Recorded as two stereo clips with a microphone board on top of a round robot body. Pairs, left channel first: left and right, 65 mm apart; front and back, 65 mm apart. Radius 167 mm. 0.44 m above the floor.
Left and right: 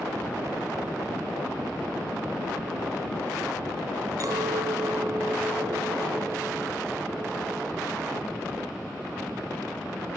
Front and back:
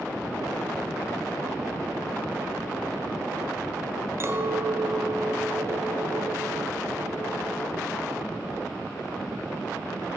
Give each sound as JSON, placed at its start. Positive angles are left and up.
{"t": 4.2, "sound": "a clink", "azimuth_deg": -130, "distance_m": 2.5}